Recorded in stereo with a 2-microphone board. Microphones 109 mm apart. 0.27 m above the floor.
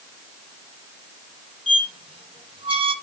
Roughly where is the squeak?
Right.